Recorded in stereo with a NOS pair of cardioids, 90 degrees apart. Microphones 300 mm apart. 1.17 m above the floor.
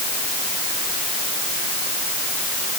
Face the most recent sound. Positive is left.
No sound to turn to.